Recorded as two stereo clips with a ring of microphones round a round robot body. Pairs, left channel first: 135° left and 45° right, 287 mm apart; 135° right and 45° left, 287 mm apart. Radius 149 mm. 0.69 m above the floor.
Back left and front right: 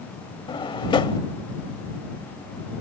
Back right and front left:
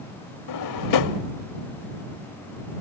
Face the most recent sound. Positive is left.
turn(degrees=-150)